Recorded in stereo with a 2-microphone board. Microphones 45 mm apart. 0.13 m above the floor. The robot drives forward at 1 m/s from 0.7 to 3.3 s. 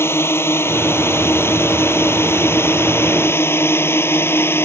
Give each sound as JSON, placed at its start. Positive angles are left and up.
{"t": 0.0, "sound": "a drone", "side_deg": 60}